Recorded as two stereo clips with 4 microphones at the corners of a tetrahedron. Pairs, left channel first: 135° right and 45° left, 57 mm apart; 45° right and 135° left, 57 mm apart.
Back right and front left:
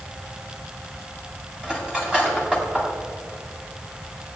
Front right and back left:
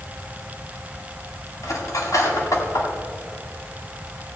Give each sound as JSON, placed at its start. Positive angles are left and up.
{"t": 1.6, "sound": "cutlery clinking", "azimuth_deg": -30, "distance_m": 2.5}